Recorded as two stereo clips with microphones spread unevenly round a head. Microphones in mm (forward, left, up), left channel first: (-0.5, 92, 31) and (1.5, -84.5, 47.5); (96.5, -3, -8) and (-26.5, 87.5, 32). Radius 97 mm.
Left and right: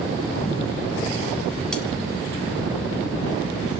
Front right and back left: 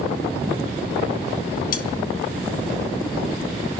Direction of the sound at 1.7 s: Straight ahead.